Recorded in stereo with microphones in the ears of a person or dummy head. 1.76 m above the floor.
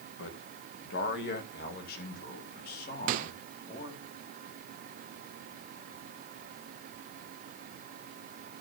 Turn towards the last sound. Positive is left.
turn(degrees=-50)  # may be behind; listen again after turning